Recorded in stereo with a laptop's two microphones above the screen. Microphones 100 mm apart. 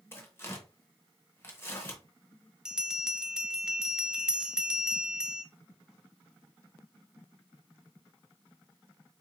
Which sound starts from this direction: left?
Tearing paper, at 0.1 s.